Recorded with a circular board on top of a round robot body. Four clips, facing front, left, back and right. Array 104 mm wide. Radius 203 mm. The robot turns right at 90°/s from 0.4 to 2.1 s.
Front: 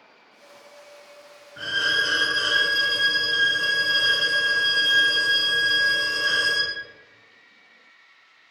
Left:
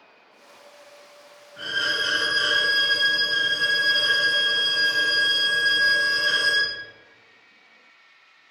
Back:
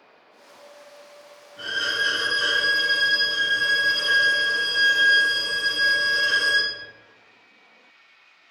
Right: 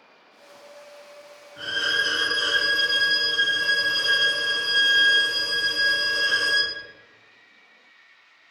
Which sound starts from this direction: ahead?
A violin, at 1.6 s.